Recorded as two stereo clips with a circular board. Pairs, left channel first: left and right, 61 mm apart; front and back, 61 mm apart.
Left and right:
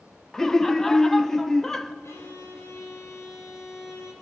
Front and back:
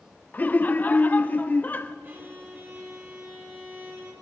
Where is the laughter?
15° left, 0.6 m.